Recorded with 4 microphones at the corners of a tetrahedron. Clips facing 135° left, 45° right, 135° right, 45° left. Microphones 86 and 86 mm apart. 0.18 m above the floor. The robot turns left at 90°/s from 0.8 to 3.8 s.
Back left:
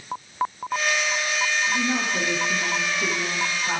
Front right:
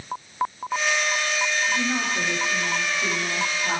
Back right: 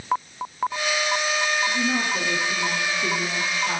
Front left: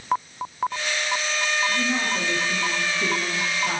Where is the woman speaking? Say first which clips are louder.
Back left 1 dB, back right 1 dB; 160° right, 4 m; by 3.8 s 5° left, 4 m.